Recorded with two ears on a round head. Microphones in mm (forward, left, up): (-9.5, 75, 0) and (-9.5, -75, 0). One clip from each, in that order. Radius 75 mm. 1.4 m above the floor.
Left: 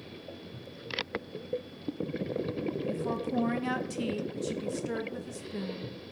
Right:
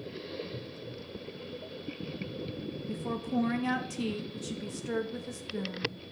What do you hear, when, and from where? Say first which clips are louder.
2.9 s a woman speaking: right 1 dB; 5° left (ahead or behind), 0.8 m